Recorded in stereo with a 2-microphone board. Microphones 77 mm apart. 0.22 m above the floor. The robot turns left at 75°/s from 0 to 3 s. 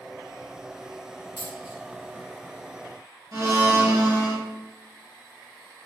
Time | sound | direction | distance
1.4 | a dropped coin | 80° left | 3 m
3.3 | a blender | 50° right (ahead or behind) | 2.5 m